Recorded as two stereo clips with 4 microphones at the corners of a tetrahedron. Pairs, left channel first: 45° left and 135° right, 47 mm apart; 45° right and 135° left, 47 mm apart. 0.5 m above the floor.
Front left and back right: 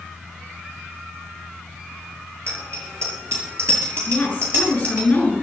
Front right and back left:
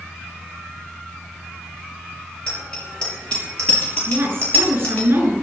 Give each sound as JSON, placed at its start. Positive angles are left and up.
{"t": 2.5, "sound": "a bicycle bell", "azimuth_deg": -120, "distance_m": 8.0}
{"t": 4.1, "sound": "a woman speaking", "azimuth_deg": 105, "distance_m": 7.0}